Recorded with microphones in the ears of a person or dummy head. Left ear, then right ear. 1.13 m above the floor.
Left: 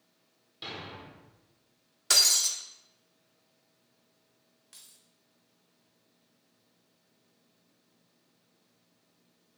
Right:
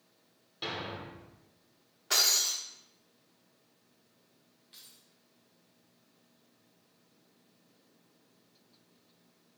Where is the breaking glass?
70° left (ahead or behind), 1.2 m.